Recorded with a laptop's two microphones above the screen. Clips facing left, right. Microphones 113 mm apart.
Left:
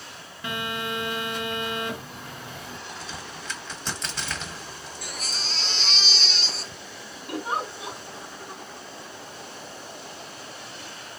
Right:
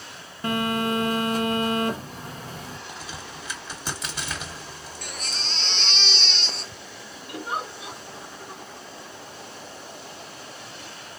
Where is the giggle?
75° left (ahead or behind), 2.5 m.